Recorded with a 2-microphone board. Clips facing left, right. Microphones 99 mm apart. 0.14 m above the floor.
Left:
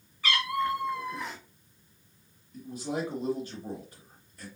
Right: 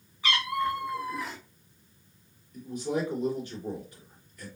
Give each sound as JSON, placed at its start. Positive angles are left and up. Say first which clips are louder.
{"t": 0.2, "sound": "a cat meowing", "louder": "even", "side_deg": -20, "distance_m": 1.9}
{"t": 2.5, "sound": "a man speaking", "louder": "right 3 dB", "side_deg": 35, "distance_m": 2.5}